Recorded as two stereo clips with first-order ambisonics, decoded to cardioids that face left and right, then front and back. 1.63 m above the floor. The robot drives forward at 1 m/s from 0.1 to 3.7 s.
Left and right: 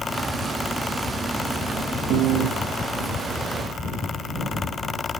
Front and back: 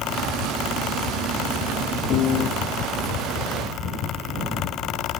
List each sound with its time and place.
2.1 s a piano: 50° right